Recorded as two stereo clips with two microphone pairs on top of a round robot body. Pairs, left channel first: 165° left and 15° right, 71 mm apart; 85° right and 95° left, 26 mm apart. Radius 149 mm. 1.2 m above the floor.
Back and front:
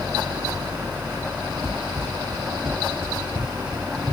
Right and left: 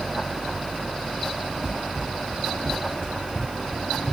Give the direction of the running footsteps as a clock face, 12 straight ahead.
10 o'clock.